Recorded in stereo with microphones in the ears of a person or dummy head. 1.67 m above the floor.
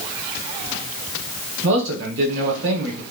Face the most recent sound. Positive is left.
turn(degrees=-75)  # may be behind; listen again after turning